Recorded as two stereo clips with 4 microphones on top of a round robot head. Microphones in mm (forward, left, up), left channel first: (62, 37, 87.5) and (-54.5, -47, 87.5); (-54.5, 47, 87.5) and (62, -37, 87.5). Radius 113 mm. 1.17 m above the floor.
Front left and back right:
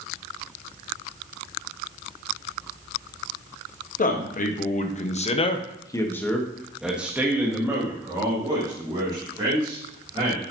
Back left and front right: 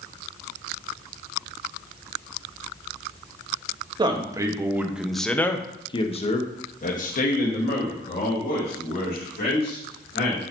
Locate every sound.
4.0 s a man speaking: 20° left, 1.2 m; by 10.4 s 155° left, 2.5 m